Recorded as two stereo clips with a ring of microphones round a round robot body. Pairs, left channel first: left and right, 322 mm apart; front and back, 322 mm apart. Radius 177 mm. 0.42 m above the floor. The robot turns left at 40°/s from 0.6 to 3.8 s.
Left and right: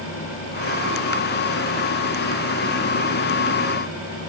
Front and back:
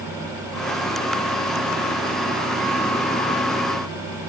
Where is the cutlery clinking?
I don't hear cutlery clinking.